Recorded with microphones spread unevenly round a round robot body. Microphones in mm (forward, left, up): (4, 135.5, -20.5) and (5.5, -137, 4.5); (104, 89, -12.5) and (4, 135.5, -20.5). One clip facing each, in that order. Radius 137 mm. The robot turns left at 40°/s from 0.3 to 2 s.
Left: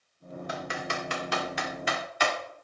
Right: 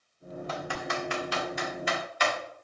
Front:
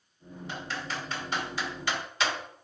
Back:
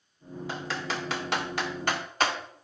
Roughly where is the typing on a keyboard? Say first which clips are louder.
Right 1 dB, back 3 dB; behind.